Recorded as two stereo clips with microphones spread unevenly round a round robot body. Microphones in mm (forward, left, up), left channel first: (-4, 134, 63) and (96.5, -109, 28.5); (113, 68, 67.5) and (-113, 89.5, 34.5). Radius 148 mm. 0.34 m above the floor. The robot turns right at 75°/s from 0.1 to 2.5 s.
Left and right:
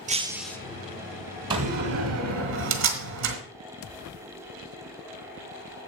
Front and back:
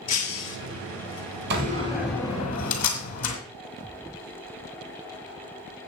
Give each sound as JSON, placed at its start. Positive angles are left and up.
{"t": 0.1, "sound": "breaking glass", "azimuth_deg": 0, "distance_m": 1.3}
{"t": 1.5, "sound": "a door slam", "azimuth_deg": -140, "distance_m": 2.0}